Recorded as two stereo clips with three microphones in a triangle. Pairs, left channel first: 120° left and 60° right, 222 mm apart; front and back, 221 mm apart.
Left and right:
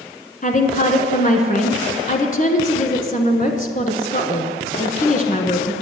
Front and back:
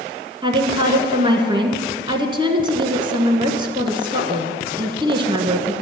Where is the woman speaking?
130° left, 1.2 m.